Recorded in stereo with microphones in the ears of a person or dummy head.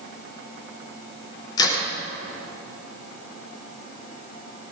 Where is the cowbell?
No cowbell in this recording.